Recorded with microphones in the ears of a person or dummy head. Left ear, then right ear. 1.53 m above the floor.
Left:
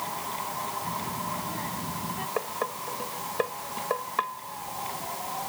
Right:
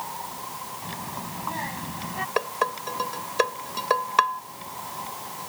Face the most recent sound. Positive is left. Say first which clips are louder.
# right 7 dB
turn(degrees=-75)  # may be behind; listen again after turning